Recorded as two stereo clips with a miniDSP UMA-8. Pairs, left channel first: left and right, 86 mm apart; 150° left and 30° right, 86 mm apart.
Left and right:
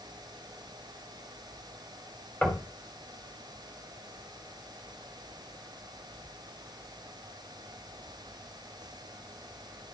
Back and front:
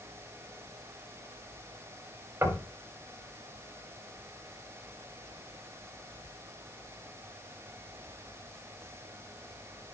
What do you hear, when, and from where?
2.4 s knocking: 20° left, 1.6 m